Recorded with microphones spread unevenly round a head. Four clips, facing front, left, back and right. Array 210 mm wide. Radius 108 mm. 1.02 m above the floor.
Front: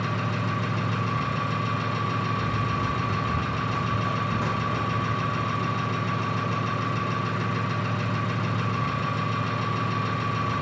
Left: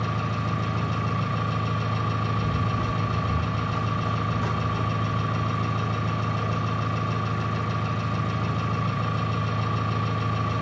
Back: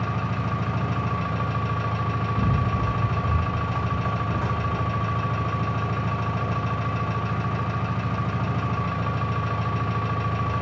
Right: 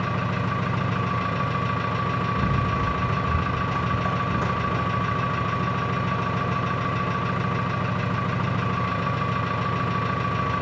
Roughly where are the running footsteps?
Behind right.